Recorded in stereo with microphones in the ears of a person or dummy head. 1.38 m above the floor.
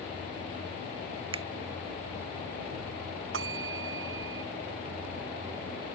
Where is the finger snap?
40° right (ahead or behind).